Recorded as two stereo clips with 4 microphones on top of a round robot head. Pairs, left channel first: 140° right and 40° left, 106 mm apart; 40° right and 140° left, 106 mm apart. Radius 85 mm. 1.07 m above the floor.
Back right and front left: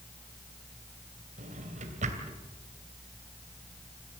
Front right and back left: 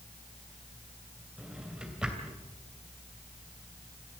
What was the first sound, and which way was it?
A drawer, 55° left.